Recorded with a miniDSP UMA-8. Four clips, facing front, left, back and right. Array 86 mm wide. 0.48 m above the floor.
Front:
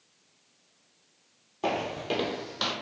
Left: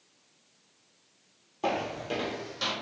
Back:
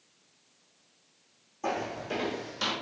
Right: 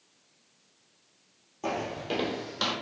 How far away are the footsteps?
About 0.7 m.